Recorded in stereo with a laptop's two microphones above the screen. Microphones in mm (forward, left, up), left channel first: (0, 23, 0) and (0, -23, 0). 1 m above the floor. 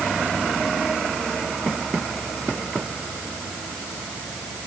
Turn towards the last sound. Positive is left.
No sound to turn to.